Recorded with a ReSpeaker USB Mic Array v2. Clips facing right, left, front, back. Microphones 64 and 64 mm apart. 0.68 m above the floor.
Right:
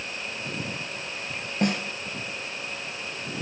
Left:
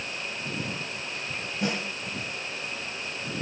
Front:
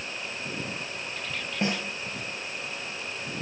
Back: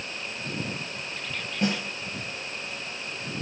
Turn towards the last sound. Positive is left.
turn(degrees=-65)